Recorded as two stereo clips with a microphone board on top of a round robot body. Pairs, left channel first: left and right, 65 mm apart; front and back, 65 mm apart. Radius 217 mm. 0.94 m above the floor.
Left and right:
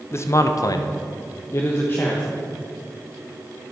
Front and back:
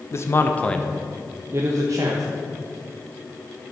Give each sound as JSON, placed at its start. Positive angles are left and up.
{"t": 0.1, "sound": "a man speaking", "azimuth_deg": 40, "distance_m": 1.0}